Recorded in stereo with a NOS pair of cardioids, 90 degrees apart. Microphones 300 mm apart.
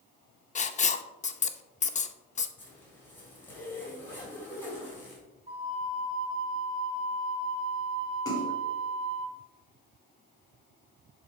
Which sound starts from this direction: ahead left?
Writing, at 0.6 s.